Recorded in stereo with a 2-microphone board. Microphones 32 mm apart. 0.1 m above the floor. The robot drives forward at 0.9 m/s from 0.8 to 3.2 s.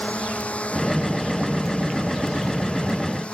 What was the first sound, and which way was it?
A drone, 40° left (ahead or behind).